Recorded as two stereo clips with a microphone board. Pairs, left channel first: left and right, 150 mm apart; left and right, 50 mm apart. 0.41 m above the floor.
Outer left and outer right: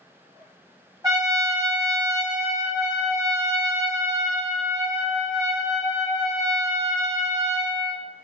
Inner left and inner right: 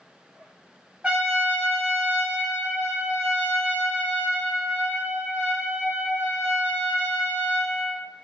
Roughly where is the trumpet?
Right.